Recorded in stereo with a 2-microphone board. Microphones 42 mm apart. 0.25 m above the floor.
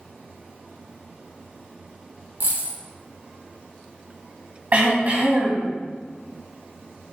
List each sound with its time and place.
2.4 s a dropped coin: 50° right (ahead or behind), 1.8 m
4.7 s throat clearing: 40° right (ahead or behind), 2 m